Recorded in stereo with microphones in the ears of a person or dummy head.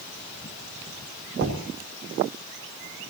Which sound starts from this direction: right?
Knocking, at 1.4 s.